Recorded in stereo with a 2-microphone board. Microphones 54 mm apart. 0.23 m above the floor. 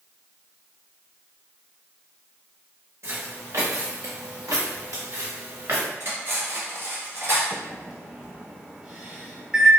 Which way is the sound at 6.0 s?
45° right (ahead or behind).